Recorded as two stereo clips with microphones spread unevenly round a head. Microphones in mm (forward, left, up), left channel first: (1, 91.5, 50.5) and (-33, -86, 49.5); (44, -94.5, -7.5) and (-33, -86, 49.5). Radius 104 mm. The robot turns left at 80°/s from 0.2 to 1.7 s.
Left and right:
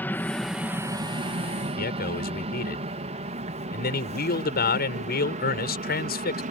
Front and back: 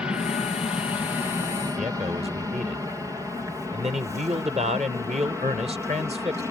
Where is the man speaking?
115° left.